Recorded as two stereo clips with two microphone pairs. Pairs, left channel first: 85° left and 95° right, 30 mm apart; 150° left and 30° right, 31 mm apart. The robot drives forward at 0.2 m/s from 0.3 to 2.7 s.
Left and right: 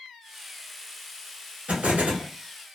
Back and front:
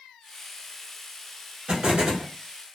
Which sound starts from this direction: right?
An explosion, at 1.7 s.